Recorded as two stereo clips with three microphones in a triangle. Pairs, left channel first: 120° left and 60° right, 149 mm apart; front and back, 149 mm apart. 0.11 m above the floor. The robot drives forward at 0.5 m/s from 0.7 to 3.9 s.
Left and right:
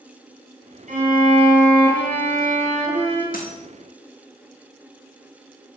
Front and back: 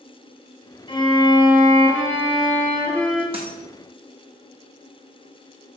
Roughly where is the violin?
Ahead right.